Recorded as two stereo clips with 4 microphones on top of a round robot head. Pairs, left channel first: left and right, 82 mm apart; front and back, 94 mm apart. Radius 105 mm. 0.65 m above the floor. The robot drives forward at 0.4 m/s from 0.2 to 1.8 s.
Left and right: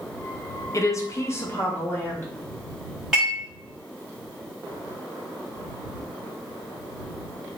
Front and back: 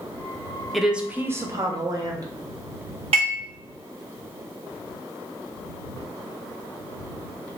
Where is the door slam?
No door slam in this recording.